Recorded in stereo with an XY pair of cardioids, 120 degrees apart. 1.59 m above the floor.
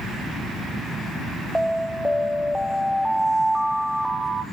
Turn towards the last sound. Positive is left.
turn(degrees=5)